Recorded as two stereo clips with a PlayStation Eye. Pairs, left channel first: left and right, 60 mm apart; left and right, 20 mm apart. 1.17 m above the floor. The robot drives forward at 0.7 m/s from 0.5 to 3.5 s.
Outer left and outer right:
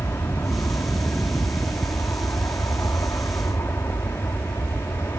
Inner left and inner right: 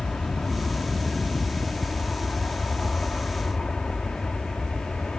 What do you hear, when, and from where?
0.0 s an aircraft: 50° left (ahead or behind)